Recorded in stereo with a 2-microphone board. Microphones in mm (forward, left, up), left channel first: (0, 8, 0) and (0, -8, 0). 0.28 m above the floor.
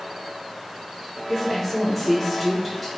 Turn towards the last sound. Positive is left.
turn(degrees=10)  # may be behind; listen again after turning